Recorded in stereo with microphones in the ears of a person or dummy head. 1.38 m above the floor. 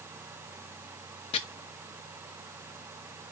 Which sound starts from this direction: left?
Chopping, at 1.3 s.